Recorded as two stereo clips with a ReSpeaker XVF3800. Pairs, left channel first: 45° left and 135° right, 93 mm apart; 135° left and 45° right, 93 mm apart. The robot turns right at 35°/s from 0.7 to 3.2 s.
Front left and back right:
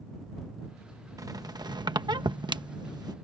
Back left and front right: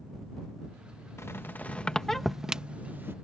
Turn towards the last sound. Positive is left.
turn(degrees=-100)